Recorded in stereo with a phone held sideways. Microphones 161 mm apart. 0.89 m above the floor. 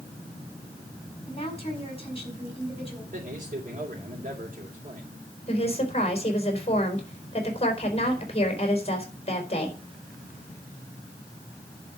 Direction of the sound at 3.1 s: 60° right (ahead or behind).